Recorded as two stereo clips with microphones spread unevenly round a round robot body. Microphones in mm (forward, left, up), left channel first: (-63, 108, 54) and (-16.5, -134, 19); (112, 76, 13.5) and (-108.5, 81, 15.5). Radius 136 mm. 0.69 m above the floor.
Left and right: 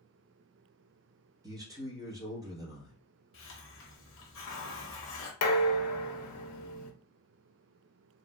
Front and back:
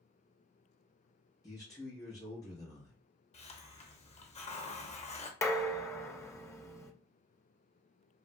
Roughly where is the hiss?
Ahead left.